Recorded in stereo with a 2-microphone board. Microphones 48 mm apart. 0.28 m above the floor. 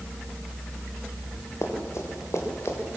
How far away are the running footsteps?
About 6.5 m.